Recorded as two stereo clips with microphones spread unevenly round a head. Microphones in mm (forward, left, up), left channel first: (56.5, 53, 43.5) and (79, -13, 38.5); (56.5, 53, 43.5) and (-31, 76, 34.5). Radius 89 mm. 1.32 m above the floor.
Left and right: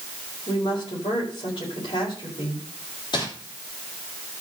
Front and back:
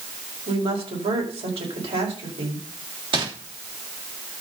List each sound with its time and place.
0.5 s a woman speaking: 155° left, 5 m
3.1 s crumpling: 145° left, 3 m